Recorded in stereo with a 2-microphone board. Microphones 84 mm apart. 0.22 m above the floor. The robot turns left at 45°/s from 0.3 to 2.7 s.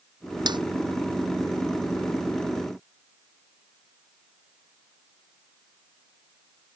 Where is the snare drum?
60° right (ahead or behind); by 0.6 s 65° right (ahead or behind).